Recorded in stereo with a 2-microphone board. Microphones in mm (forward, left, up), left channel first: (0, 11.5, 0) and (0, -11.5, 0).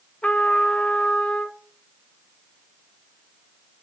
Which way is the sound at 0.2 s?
75° left (ahead or behind).